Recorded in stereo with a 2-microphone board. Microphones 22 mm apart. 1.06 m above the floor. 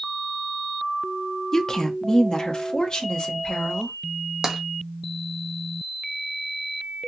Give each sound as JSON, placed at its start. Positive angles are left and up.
{"t": 1.5, "sound": "a woman speaking", "side_deg": 25, "distance_m": 0.6}
{"t": 4.4, "sound": "tapping", "side_deg": -25, "distance_m": 0.9}